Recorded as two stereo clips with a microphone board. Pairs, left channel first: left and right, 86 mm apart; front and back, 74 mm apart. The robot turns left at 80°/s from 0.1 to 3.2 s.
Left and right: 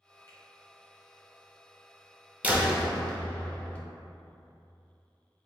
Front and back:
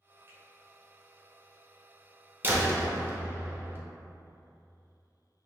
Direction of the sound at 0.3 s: 130° left.